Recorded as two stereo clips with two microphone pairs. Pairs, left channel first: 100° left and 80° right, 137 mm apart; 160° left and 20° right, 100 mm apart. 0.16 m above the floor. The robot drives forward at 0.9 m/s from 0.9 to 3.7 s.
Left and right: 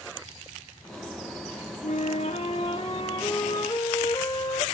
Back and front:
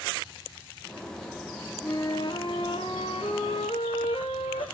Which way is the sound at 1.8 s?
115° left.